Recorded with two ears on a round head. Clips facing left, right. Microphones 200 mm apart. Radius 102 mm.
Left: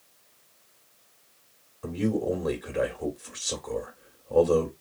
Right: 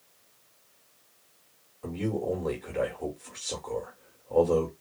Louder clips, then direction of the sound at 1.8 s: Left 3 dB; 10° left (ahead or behind).